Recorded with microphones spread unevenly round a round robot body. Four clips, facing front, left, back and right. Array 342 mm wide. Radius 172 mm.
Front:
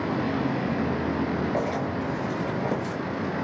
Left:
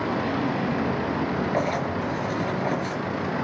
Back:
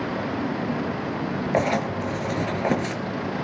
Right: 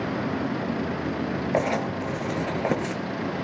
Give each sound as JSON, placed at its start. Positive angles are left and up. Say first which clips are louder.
{"t": 1.5, "sound": "writing", "louder": "even, back 4 dB", "azimuth_deg": -155, "distance_m": 4.5}